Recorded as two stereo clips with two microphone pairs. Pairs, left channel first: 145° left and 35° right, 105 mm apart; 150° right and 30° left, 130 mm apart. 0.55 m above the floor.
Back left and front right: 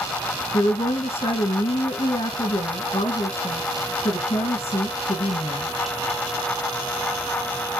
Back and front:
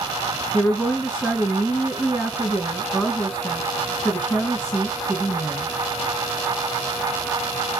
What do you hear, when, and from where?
0.5 s a woman speaking: 130° left, 3.5 m